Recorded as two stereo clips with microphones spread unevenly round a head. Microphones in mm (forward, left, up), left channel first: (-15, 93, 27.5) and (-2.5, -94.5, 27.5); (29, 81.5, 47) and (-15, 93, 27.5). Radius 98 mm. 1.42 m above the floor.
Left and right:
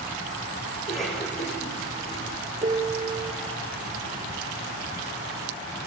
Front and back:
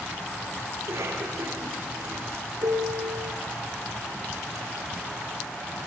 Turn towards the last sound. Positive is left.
turn(degrees=-150)